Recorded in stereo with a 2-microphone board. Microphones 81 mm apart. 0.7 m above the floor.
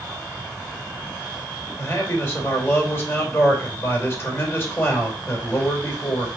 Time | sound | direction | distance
1.8 | a man speaking | 30° left (ahead or behind) | 2.5 m